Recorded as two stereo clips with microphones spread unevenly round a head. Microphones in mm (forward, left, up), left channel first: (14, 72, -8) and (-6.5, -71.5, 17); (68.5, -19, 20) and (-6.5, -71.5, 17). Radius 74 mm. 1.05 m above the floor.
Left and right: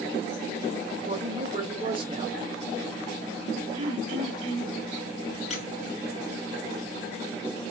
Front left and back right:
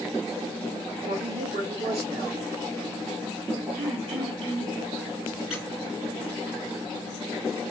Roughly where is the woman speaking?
Behind.